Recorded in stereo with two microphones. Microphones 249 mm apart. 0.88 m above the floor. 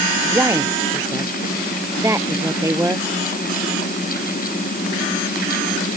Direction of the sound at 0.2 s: 10° right (ahead or behind).